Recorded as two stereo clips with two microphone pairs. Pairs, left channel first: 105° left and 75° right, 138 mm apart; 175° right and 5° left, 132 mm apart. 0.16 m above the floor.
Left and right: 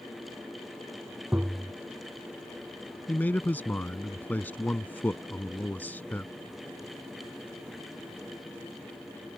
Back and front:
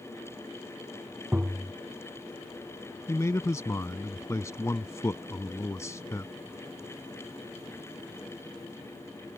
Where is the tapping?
40° right.